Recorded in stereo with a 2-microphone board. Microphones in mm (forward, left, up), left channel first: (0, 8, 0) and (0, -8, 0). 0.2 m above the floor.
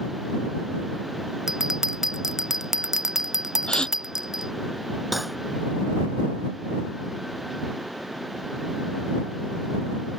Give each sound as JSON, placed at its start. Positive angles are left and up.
{"t": 1.5, "sound": "a bell", "side_deg": -30}
{"t": 3.7, "sound": "a gasp", "side_deg": 75}
{"t": 5.1, "sound": "cutlery clinking", "side_deg": -10}